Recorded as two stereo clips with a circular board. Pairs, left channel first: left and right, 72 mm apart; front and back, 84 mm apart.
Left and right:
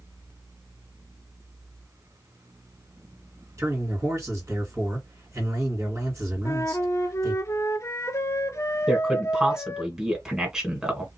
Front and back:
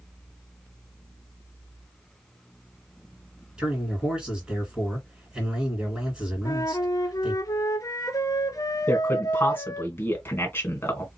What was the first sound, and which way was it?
A man speaking, 105° right.